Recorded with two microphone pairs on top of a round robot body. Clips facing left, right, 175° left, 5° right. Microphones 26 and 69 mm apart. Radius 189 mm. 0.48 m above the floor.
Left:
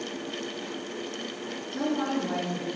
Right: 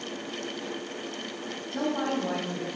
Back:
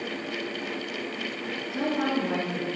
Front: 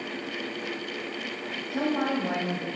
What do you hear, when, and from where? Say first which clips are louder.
1.7 s a woman speaking: even, even; 40° right, 4.5 m